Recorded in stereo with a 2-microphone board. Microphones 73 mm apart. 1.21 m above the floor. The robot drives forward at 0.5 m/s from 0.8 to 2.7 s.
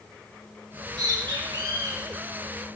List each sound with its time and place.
0.7 s a bird: 85° right, 4.5 m; by 2.7 s 80° right, 4.5 m